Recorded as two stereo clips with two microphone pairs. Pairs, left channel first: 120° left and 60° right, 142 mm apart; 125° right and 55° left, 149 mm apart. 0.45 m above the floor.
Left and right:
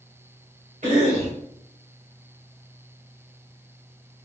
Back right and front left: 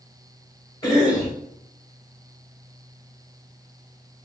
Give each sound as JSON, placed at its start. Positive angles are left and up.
{"t": 0.8, "sound": "a cough", "azimuth_deg": -65, "distance_m": 1.8}